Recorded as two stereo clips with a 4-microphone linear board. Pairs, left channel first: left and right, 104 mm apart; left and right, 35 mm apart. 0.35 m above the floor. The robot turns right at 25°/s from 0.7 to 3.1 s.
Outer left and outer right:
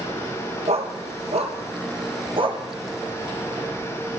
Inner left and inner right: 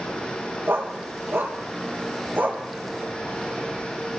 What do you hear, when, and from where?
0.7 s a dog barking: 80° right, 4 m; by 2.6 s 50° right (ahead or behind), 4 m